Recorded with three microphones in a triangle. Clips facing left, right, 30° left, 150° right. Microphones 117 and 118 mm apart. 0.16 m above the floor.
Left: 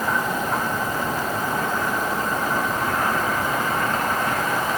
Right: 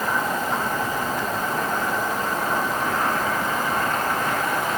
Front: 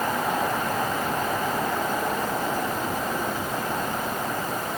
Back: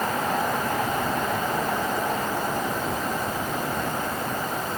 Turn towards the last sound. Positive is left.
No sound to turn to.